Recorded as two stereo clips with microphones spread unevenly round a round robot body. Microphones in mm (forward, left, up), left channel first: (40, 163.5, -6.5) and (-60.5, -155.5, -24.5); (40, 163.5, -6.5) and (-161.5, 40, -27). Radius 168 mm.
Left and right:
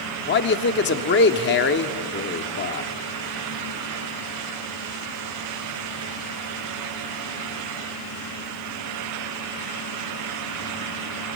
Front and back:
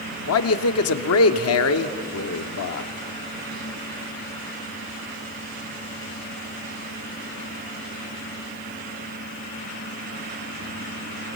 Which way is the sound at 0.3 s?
15° left.